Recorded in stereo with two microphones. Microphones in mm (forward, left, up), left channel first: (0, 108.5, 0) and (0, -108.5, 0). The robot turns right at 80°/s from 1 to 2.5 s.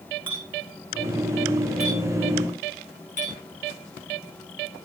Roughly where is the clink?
Right.